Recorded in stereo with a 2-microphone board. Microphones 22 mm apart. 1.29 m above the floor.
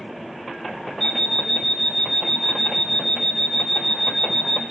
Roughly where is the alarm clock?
Centre.